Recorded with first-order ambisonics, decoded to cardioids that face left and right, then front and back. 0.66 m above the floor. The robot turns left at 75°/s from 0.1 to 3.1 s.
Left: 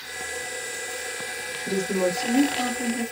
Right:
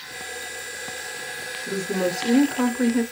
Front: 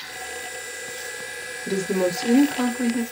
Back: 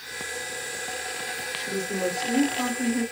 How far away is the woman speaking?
About 0.9 m.